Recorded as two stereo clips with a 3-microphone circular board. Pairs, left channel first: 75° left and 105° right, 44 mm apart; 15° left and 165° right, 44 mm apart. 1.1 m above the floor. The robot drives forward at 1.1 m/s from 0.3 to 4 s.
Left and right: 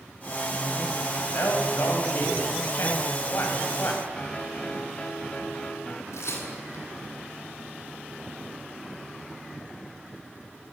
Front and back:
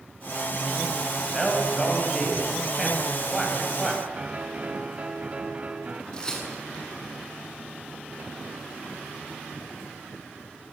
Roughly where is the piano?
Behind left.